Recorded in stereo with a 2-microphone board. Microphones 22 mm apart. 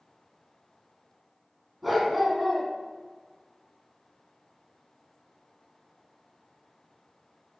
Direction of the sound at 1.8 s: 5° right (ahead or behind).